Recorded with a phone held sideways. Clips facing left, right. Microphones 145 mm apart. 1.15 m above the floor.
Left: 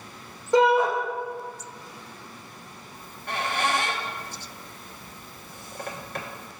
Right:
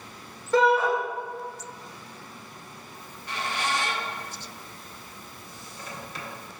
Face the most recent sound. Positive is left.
turn(degrees=55)  # may be behind; listen again after turning